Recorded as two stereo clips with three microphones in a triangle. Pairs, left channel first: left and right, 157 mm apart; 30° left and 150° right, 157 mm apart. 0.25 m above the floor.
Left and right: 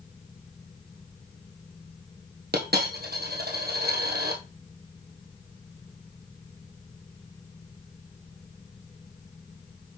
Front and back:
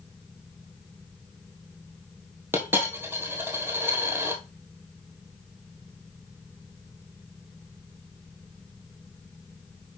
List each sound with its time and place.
2.5 s a dropped coin: 75° right, 1.6 m